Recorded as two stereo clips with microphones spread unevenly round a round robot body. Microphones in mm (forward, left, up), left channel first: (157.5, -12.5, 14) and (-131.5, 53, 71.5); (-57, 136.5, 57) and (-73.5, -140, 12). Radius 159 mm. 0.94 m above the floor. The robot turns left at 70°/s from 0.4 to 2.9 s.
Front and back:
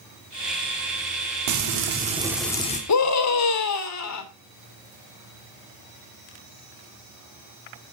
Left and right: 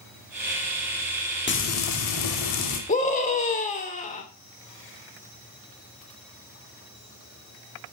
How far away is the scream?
About 3 m.